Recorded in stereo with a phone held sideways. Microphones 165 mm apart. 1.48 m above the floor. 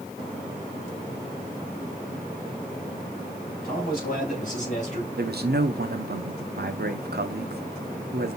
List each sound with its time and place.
3.6 s a man speaking: 60° left (ahead or behind), 2.5 m; by 5.1 s 45° left (ahead or behind), 2.5 m
5.2 s a man speaking: 75° right (ahead or behind), 0.7 m